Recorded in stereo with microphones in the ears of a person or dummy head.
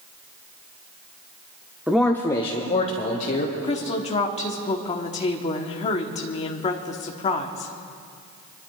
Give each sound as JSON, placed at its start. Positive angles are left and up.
{"t": 1.9, "sound": "a man speaking", "side_deg": -10, "distance_m": 0.6}
{"t": 3.6, "sound": "a woman speaking", "side_deg": 35, "distance_m": 1.1}